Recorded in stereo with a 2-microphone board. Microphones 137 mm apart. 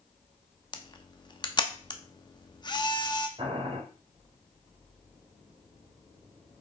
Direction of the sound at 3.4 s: 40° right (ahead or behind).